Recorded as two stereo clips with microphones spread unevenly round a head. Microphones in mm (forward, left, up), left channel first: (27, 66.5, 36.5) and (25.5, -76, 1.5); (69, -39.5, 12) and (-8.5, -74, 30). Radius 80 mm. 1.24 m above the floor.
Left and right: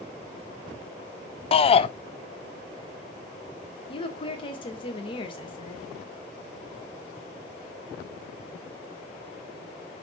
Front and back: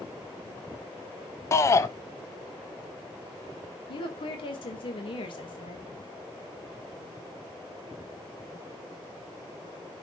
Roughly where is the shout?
Ahead left.